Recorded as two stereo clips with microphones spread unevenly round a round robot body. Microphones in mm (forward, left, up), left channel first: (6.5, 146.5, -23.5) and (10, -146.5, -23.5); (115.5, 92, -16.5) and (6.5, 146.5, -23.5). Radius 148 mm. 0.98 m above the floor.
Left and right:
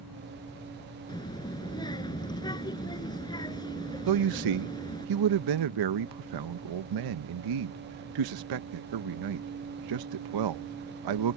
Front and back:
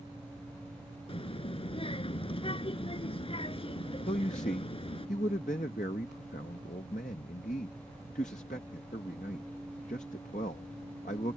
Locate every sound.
1.1 s a child speaking: 15° left
4.1 s a man speaking: 80° right